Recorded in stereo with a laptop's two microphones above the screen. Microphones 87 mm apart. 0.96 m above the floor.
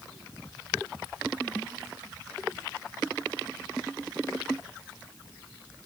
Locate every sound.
Only background noise.